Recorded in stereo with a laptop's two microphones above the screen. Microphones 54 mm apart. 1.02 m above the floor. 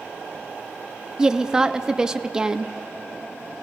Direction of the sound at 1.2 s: 15° right (ahead or behind).